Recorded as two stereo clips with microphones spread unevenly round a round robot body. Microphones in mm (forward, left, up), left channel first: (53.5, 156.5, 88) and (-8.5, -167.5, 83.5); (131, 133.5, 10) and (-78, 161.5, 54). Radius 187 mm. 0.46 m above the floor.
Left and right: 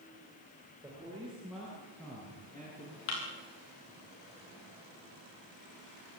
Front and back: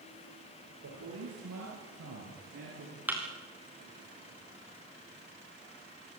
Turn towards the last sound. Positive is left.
turn(degrees=90)